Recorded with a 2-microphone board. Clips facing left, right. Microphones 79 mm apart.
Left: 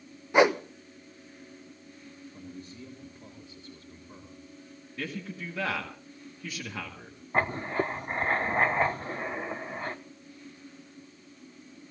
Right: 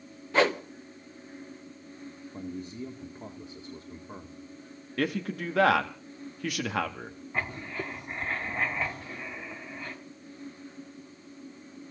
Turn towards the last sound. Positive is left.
turn(degrees=40)  # may be behind; listen again after turning